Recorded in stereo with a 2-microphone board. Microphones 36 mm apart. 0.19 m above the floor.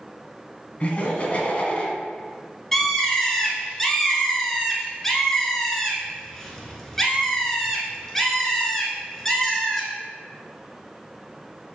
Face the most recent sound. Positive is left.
turn(degrees=10)  # may be behind; listen again after turning